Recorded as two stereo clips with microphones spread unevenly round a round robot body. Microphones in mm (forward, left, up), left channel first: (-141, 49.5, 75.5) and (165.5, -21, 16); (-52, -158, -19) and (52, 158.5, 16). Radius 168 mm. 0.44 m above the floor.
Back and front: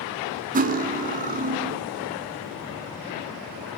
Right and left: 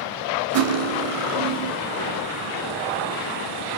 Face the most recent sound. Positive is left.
turn(degrees=35)